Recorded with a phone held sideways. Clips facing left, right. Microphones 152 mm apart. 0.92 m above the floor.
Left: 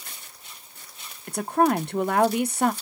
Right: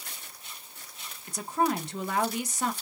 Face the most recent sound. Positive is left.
turn(degrees=60)  # may be behind; listen again after turning